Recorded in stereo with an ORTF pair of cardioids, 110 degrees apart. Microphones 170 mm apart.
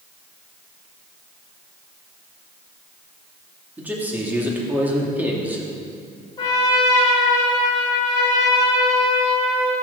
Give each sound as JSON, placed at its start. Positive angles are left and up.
{"t": 3.8, "sound": "a man speaking", "azimuth_deg": -10, "distance_m": 2.5}
{"t": 6.4, "sound": "a trumpet", "azimuth_deg": 25, "distance_m": 2.5}